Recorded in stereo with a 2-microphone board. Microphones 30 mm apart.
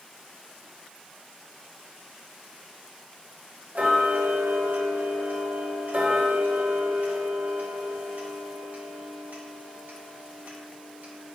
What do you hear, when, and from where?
3.8 s ticking: 65° right (ahead or behind), 1.3 m